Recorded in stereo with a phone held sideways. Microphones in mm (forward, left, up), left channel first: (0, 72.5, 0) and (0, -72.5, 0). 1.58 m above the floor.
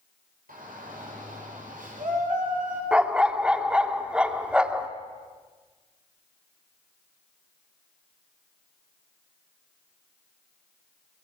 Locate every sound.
0.5 s a shout: 70° right (ahead or behind), 8 m; by 2.8 s 60° right (ahead or behind), 7.5 m
2.9 s a dog barking: 5° right (ahead or behind), 1.3 m